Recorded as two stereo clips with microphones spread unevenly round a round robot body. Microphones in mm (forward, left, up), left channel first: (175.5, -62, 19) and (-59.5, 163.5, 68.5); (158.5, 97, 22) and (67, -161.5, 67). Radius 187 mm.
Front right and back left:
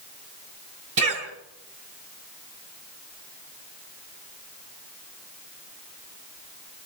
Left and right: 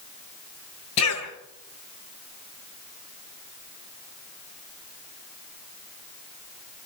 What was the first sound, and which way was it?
A cough, 105° left.